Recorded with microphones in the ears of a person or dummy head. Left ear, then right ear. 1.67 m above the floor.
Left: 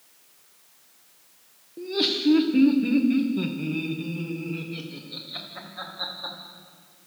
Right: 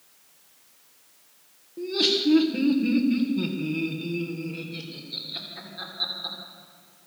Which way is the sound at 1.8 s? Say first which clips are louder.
Right 2 dB; 5° left (ahead or behind).